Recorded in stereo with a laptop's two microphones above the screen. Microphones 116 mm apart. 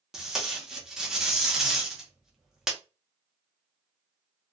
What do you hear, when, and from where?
0.1 s tape being pulled: 5° right (ahead or behind), 0.6 m